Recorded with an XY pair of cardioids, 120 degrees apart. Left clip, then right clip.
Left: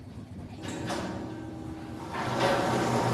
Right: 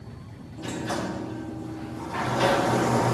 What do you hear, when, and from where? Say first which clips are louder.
0.6 s a sliding door: right 4 dB; 25° right